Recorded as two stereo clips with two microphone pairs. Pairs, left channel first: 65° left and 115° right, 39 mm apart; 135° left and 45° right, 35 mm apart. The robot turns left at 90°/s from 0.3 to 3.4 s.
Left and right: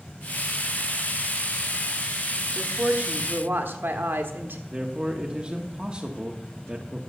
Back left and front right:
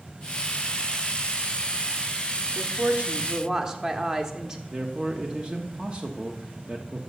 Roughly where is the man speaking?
Right.